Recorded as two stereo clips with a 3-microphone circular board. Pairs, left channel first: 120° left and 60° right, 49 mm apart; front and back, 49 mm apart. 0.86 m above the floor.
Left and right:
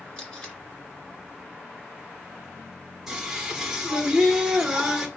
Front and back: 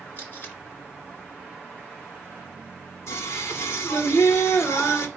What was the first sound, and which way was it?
Tape being pulled, 50° left.